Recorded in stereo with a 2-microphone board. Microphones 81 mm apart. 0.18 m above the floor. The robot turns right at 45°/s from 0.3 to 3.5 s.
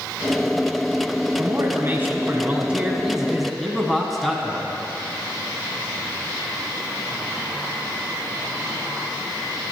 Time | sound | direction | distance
1.4 | a man speaking | 90° right | 1.4 m